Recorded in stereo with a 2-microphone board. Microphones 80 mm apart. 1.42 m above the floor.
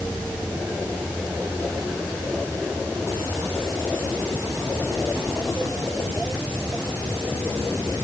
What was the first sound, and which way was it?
Only background noise.